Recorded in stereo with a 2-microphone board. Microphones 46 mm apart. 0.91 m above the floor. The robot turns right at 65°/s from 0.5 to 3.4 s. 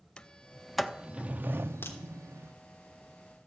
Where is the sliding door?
20° left (ahead or behind), 0.7 m; by 2.5 s 65° right (ahead or behind), 0.7 m.